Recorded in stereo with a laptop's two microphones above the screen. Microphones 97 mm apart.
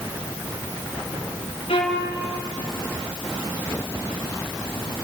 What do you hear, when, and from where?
1.7 s a violin: 80° left, 3.5 m